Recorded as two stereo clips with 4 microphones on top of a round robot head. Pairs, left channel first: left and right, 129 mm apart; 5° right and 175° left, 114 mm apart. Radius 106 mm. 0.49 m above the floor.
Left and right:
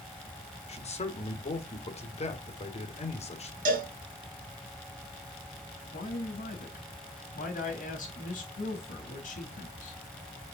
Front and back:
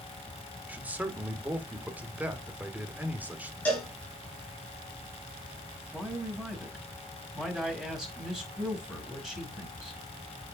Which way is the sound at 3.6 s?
85° right.